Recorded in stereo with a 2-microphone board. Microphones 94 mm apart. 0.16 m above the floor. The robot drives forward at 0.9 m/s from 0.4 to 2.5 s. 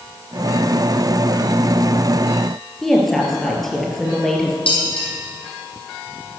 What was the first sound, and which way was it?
A woman speaking, 5° left (ahead or behind).